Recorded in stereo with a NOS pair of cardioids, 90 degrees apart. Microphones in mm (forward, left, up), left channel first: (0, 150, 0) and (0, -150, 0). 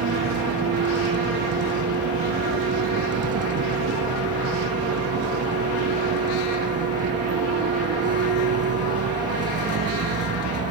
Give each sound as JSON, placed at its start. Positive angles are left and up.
{"t": 0.0, "sound": "a vehicle", "azimuth_deg": -55}